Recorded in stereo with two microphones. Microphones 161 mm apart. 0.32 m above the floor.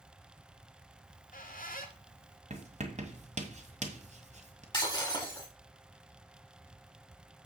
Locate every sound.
1.0 s a squeak: 60° left (ahead or behind), 1.1 m
2.5 s writing: 45° right (ahead or behind), 1.4 m
4.7 s breaking glass: 25° left (ahead or behind), 4.5 m